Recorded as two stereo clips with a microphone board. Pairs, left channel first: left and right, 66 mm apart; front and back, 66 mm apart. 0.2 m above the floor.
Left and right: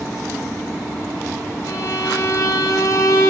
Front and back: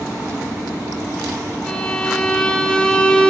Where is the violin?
75° left, 0.5 m.